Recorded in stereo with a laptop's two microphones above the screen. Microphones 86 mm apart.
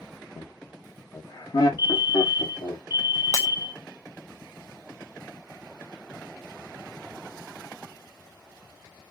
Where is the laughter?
60° left (ahead or behind), 0.9 m; by 2.8 s 65° left (ahead or behind), 2.5 m.